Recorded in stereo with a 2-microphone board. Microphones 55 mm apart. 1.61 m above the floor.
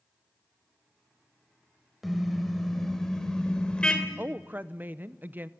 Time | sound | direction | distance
2.0 | a car horn | centre (ahead or behind) | 2.5 m
4.2 | a woman speaking | 35° right (ahead or behind) | 0.8 m